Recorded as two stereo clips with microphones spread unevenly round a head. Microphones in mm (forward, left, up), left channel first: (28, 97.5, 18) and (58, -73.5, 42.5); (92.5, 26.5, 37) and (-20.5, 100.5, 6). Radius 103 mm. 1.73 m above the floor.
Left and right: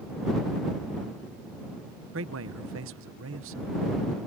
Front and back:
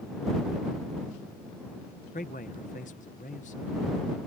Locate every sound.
2.1 s a man speaking: 85° right